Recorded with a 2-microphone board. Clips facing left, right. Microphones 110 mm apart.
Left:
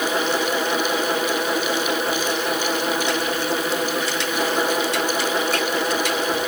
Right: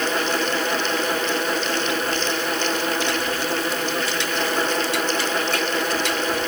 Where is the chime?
No chime in this recording.